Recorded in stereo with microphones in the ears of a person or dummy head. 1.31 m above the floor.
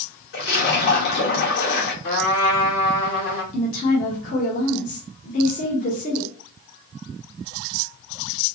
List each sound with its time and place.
0.3 s a splash: 55° left (ahead or behind), 1.4 m
2.0 s a trumpet: 50° left (ahead or behind), 1.5 m
3.5 s a woman speaking: 45° left (ahead or behind), 1.0 m